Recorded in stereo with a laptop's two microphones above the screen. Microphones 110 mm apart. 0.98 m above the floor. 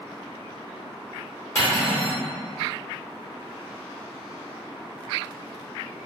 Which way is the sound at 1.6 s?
30° left (ahead or behind).